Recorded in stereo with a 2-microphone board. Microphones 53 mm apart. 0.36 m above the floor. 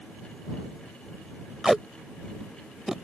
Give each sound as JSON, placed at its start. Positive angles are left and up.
{"t": 1.6, "sound": "tape being pulled", "side_deg": -10}